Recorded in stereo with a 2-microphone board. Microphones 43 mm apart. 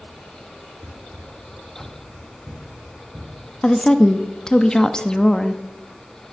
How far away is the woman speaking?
About 0.5 m.